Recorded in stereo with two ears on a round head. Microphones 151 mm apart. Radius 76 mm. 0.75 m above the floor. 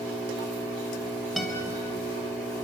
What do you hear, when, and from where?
0.0 s an engine running: 10° right (ahead or behind), 3 m
1.4 s a guitar: centre (ahead or behind), 3 m